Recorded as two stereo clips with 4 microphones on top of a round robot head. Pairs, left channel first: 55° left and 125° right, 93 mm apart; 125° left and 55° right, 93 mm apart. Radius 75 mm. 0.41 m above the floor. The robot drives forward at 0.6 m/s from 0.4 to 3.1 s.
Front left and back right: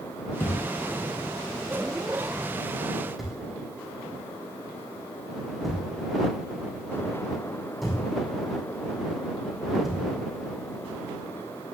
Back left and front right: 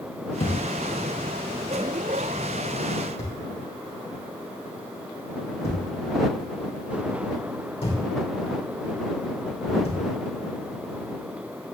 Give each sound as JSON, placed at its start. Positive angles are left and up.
{"t": 0.4, "sound": "a thud", "azimuth_deg": 120, "distance_m": 2.5}